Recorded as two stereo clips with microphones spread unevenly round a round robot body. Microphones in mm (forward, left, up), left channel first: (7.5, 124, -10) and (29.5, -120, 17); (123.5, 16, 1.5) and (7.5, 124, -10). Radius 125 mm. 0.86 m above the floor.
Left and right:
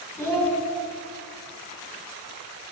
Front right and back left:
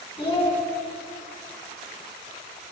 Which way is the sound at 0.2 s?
10° left.